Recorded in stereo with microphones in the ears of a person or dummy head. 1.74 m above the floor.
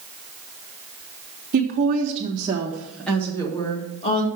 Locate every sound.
1.5 s a woman speaking: 40° right (ahead or behind), 1.6 m; by 4.3 s 35° left (ahead or behind), 1.9 m